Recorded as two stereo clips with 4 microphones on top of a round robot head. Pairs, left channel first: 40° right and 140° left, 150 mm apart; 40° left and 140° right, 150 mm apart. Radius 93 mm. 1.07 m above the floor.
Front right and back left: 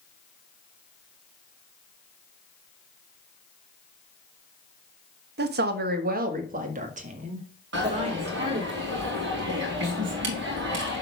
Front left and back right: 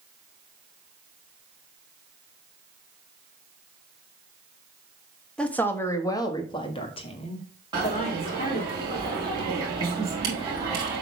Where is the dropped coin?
150° left, 4 m.